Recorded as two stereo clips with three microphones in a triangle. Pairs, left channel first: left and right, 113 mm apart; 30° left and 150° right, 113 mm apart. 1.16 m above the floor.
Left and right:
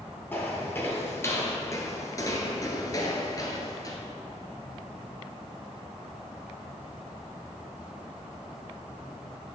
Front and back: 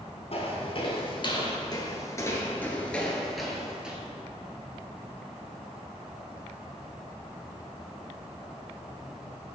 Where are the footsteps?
20° left, 1.7 m; by 4.0 s 135° left, 1.5 m.